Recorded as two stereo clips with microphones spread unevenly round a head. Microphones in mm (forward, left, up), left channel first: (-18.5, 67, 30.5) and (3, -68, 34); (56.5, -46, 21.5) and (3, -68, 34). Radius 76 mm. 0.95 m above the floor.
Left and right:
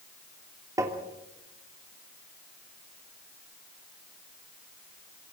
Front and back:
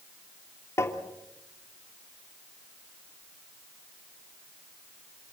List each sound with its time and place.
0.8 s tapping: 10° right, 3 m